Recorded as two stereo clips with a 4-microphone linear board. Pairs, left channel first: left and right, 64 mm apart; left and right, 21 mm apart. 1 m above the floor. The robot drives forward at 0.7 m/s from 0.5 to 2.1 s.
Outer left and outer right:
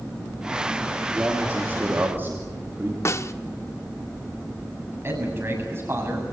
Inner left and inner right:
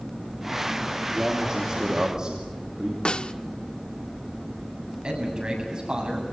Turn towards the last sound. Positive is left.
turn(degrees=-40)  # may be behind; listen again after turning